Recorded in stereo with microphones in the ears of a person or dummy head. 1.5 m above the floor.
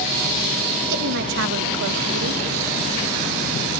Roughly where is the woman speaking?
Right.